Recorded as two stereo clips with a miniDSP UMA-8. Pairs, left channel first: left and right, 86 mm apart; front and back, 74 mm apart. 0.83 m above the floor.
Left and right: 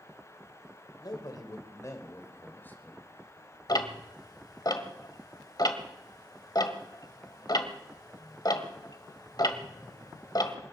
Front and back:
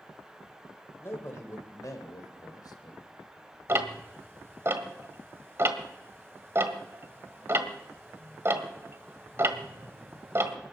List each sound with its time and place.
1.0 s a man speaking: 55° left, 3 m; by 3.6 s 10° left, 3 m
3.7 s ticking: 125° left, 1.4 m